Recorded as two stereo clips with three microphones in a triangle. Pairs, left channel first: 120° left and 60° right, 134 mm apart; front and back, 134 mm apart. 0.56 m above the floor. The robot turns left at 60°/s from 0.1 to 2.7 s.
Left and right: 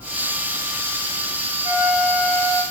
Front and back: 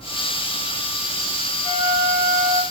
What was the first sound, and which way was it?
A flute, 130° right.